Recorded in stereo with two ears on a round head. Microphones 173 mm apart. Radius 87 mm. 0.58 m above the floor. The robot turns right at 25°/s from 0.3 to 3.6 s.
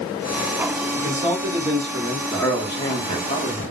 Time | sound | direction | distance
0.9 | a man speaking | 20° right (ahead or behind) | 1.1 m
2.3 | a man speaking | 20° left | 0.9 m